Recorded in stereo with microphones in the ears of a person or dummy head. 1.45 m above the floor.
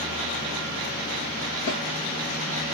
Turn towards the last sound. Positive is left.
turn(degrees=60)  # may be behind; listen again after turning